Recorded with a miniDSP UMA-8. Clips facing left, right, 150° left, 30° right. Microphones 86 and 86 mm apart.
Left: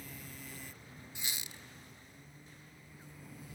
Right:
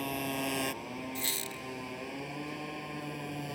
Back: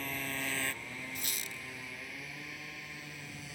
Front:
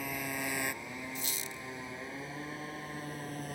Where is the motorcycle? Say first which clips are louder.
Right 17 dB, front 2 dB; 110° right; by 3.6 s 75° right.